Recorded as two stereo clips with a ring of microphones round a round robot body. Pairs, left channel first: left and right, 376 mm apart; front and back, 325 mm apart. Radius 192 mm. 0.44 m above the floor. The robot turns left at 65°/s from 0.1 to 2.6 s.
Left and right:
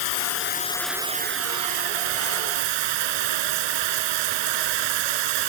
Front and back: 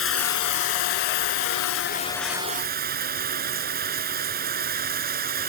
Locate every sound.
0.0 s running water: 50° left; by 5.5 s 110° right